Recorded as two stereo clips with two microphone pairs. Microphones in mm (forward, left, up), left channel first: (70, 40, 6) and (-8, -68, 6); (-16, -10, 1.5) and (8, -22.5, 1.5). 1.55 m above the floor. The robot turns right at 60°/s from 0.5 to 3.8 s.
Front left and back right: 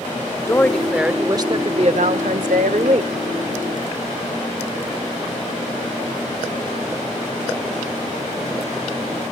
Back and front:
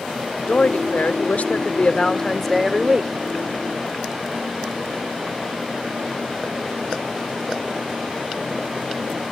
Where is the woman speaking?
120° left, 0.6 m; by 3.1 s 85° right, 0.6 m.